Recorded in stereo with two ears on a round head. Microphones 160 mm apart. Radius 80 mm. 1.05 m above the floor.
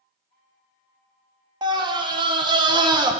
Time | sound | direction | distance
1.6 | a scream | 25° right (ahead or behind) | 0.6 m